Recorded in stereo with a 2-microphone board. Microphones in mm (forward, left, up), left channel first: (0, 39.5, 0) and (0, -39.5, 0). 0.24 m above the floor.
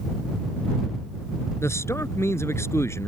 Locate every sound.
1.6 s a man speaking: 35° left (ahead or behind)